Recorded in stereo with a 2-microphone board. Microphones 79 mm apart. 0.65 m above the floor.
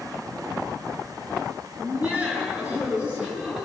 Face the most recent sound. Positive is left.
turn(degrees=-10)  # may be behind; listen again after turning